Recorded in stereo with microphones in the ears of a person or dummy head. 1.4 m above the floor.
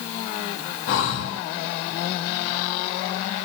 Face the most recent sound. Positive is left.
turn(degrees=60)  # may be behind; listen again after turning